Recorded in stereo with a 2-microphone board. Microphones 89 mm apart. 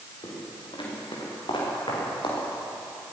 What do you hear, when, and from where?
0.2 s footsteps: 70° left (ahead or behind), 9 m; by 2.4 s 65° left (ahead or behind), 9.5 m